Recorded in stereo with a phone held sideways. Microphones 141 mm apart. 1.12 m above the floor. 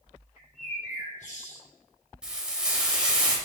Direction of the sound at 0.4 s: 55° left (ahead or behind).